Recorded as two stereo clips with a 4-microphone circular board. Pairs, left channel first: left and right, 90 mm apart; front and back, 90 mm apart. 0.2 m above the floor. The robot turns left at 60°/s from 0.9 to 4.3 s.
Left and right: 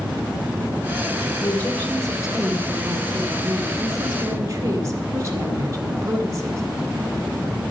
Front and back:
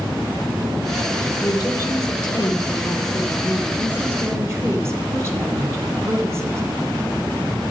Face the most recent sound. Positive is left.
turn(degrees=-130)